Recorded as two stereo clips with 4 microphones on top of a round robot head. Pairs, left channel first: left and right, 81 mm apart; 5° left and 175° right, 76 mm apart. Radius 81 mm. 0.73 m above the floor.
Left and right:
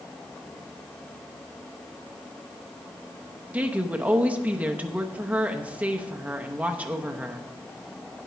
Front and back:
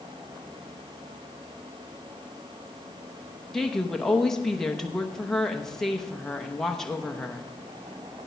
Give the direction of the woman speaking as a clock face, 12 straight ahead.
2 o'clock.